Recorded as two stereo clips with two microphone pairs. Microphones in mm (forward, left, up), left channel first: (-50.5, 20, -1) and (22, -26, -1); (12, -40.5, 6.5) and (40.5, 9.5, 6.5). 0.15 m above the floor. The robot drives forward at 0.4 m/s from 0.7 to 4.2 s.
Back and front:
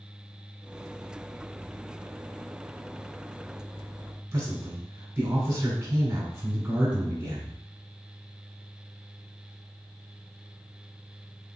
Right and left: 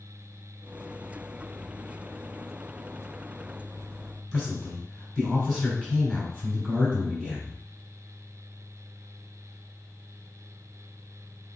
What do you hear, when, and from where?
4.3 s a man speaking: 25° right, 1.1 m